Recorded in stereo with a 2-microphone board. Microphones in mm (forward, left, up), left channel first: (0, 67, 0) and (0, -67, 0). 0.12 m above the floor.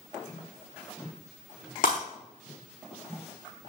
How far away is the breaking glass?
About 4 m.